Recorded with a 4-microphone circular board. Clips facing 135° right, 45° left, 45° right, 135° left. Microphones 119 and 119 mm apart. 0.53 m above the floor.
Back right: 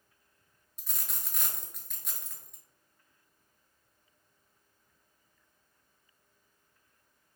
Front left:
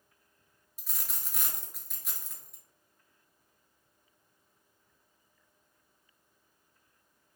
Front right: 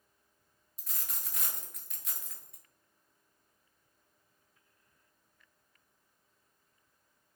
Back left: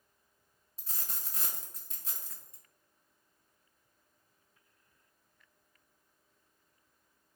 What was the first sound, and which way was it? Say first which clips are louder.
A dropped coin: even, even; 130° left.